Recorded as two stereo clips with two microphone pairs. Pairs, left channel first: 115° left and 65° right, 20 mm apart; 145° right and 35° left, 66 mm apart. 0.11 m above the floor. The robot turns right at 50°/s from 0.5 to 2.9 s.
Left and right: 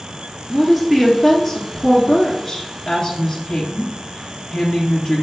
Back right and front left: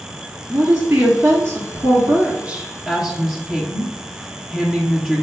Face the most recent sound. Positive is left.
turn(degrees=95)